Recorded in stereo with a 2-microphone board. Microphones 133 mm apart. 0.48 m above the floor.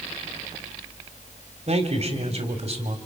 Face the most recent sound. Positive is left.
turn(degrees=-55)  # may be behind; listen again after turning